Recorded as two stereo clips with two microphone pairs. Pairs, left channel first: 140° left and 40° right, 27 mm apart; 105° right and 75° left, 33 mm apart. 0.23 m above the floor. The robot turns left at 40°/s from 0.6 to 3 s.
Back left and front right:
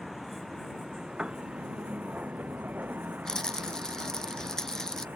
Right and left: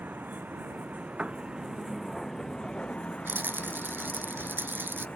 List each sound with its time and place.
0.0 s a vehicle: 45° left; by 5.2 s 50° right
1.2 s a piano: 15° left; by 1.4 s 5° left
3.2 s a rattle: 70° left